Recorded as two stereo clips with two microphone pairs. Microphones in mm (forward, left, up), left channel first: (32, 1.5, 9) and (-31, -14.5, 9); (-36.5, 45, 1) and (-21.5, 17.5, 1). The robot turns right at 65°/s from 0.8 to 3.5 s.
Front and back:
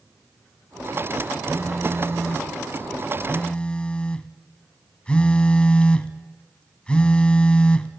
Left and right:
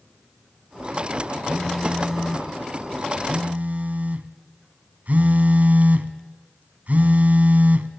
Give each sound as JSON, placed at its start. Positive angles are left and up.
{"t": 1.5, "sound": "a phone buzzing", "azimuth_deg": 175, "distance_m": 1.0}